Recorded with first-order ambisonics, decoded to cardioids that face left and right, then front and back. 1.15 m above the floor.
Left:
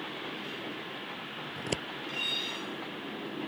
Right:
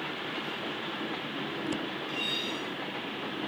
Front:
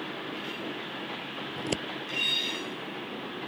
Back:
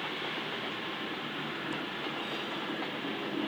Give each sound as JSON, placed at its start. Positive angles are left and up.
{"t": 1.6, "sound": "scissors", "azimuth_deg": 30}